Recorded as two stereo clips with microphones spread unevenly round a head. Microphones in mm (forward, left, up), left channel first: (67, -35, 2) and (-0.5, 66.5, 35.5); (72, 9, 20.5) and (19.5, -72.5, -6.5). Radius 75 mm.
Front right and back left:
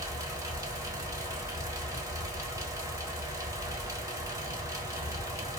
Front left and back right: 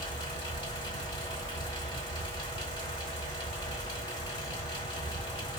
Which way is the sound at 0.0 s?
75° left.